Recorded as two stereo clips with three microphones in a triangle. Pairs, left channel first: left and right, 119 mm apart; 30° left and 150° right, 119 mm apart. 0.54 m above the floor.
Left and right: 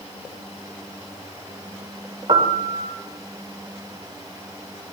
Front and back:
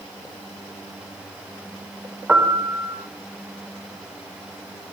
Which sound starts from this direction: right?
A piano, at 2.3 s.